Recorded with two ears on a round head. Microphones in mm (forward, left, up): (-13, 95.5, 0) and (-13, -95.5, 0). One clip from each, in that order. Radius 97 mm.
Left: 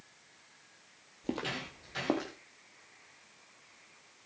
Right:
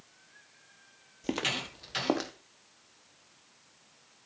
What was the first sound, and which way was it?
Footsteps, 40° right (ahead or behind).